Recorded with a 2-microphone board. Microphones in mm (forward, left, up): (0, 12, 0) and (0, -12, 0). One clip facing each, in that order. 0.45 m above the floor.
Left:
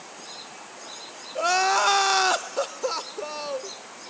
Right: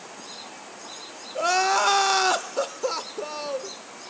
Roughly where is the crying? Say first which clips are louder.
Even; centre.